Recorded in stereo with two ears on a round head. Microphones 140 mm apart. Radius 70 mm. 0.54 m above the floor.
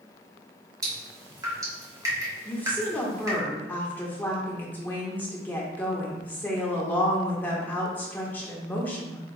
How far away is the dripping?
About 1.0 m.